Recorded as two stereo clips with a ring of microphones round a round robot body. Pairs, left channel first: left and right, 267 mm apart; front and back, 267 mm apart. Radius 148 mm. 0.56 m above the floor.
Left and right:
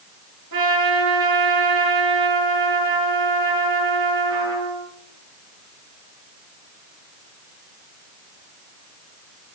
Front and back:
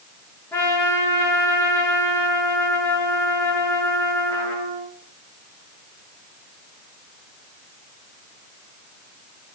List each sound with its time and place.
0.5 s a trumpet: 80° right, 8 m